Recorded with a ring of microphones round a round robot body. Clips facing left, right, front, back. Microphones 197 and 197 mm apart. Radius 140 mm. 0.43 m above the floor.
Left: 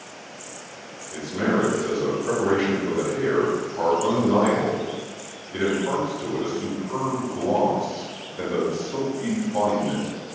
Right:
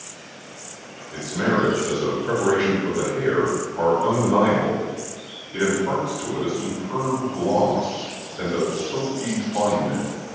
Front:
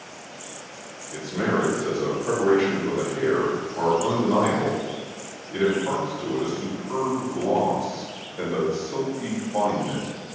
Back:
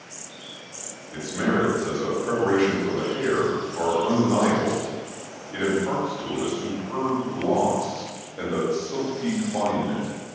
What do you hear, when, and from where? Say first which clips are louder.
1.1 s a man speaking: even, even; 85° left, 1.5 m